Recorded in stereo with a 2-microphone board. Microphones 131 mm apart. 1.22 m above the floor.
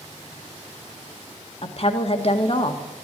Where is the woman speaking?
50° left (ahead or behind), 1.6 m.